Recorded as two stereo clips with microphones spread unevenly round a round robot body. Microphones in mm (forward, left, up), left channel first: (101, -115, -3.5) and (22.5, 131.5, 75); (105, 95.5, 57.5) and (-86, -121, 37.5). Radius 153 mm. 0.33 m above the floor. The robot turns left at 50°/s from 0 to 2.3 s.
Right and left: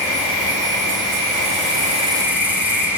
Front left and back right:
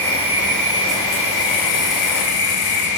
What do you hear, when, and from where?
0.0 s an insect: 135° left, 1.8 m; by 3.0 s 20° left, 1.8 m